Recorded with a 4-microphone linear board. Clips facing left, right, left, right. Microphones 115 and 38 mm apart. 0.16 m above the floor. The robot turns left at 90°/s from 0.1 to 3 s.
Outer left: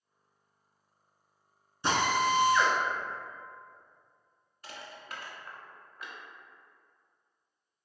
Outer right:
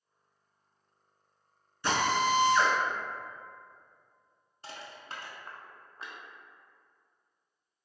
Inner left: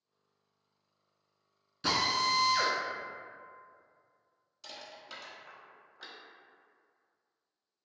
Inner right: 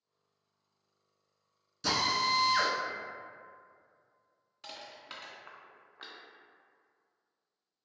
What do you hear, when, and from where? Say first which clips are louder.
1.8 s a drill: even, even; 30° left, 0.6 m; by 2.8 s 55° right, 0.6 m
4.6 s crushing: outer right 1 dB, inner right 1 dB; 30° right (ahead or behind), 0.6 m